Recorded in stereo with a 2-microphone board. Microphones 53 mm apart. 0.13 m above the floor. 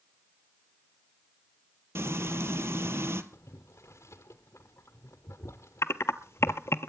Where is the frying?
60° right (ahead or behind), 1.1 m.